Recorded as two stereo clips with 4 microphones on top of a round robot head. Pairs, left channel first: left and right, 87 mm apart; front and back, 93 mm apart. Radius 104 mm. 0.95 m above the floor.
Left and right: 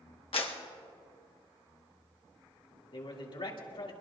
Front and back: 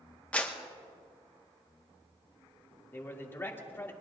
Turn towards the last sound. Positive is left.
turn(degrees=65)